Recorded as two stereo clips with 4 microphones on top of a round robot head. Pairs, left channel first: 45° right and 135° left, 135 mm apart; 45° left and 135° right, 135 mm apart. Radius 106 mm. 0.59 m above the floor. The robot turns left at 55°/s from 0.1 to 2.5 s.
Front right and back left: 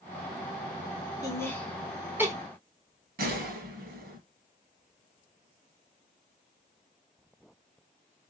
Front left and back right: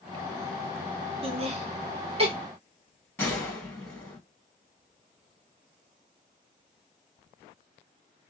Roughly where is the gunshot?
Behind left.